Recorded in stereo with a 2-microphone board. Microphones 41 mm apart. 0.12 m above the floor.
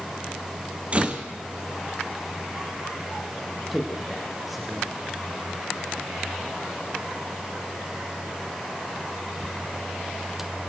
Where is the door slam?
30° right (ahead or behind), 3 m.